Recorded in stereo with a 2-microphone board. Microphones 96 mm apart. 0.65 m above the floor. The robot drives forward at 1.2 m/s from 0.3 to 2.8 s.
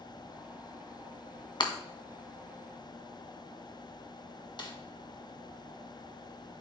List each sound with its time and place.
1.6 s breaking glass: 50° left (ahead or behind), 1.7 m; by 1.7 s 45° left (ahead or behind), 1.8 m
4.6 s a snare drum: 45° left (ahead or behind), 1.7 m